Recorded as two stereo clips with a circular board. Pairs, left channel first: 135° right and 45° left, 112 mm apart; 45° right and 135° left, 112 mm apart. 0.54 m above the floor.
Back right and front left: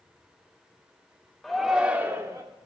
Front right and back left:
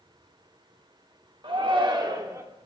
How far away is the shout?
About 1.2 m.